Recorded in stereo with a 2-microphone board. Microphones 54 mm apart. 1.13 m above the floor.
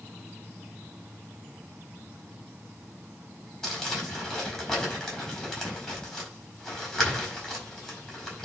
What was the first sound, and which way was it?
Crumpling, 10° left (ahead or behind).